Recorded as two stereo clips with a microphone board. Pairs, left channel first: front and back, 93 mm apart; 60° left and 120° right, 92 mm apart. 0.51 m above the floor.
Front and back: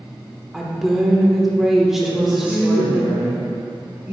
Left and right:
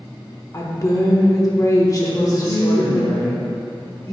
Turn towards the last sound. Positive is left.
turn(degrees=110)